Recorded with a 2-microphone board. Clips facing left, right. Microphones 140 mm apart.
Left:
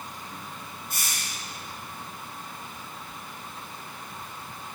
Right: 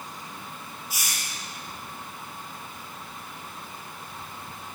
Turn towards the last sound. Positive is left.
turn(degrees=-10)  # may be behind; listen again after turning